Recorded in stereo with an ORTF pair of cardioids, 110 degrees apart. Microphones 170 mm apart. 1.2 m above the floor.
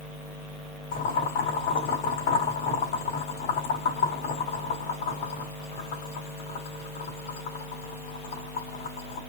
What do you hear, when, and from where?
0.9 s boiling: 65° left, 2.5 m